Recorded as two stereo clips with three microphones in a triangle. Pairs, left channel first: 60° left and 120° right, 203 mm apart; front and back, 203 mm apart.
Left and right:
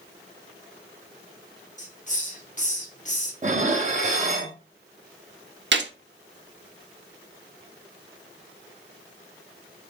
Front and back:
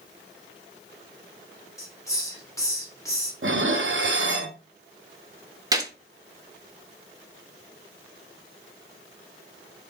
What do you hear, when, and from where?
1.8 s a hiss: 65° left, 1.1 m
3.4 s dishes clattering: 170° right, 0.7 m
5.7 s a gunshot: 110° right, 0.6 m